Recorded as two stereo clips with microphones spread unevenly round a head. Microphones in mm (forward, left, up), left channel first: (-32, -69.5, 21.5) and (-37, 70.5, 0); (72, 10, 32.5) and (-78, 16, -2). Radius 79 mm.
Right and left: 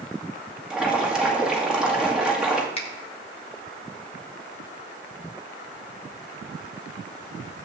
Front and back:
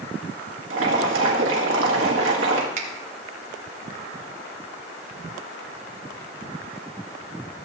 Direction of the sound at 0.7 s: Straight behind.